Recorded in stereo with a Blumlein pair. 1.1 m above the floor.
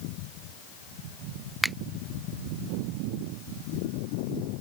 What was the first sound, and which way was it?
A finger snap, 5° right.